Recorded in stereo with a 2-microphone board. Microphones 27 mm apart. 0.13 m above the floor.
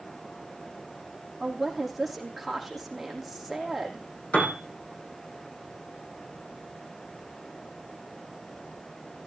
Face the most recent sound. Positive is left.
turn(degrees=65)  # may be behind; listen again after turning